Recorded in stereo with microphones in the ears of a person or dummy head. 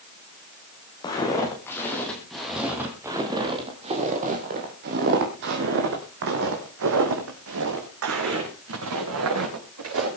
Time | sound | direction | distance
1.0 | footsteps | 25° left (ahead or behind) | 3.5 m